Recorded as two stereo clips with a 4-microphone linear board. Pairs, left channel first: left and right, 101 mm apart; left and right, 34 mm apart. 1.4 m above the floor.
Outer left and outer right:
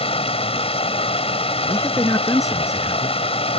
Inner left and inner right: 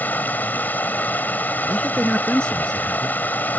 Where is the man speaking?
30° left (ahead or behind).